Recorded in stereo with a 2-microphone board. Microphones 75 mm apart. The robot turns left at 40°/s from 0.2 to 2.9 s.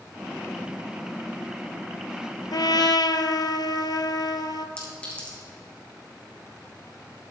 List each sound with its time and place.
2.5 s a trumpet: 65° left (ahead or behind), 0.7 m
4.8 s a clink: 15° left (ahead or behind), 3.5 m